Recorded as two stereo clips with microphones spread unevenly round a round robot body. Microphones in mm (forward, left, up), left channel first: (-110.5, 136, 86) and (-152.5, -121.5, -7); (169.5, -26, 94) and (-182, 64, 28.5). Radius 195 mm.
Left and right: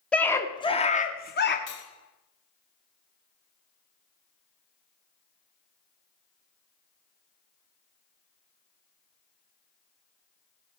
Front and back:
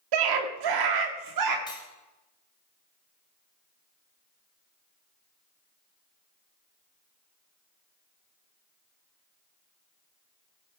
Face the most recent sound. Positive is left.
turn(degrees=65)